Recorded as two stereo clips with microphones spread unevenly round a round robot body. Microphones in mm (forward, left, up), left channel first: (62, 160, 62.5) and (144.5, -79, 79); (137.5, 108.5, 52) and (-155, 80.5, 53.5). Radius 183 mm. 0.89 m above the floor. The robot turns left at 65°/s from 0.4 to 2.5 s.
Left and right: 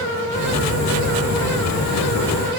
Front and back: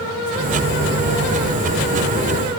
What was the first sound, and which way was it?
Only background noise.